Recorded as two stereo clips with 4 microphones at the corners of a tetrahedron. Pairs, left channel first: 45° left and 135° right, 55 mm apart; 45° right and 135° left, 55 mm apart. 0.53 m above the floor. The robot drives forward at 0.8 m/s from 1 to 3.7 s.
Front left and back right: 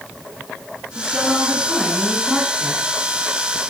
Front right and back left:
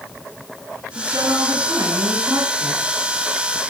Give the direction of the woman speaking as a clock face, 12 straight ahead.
7 o'clock.